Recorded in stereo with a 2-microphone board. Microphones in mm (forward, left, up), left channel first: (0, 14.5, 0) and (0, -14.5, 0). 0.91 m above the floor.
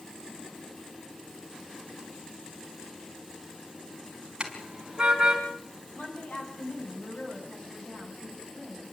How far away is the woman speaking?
About 8.5 m.